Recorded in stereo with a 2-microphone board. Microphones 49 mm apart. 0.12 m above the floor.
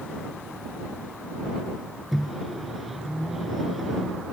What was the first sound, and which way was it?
A microwave, 5° right (ahead or behind).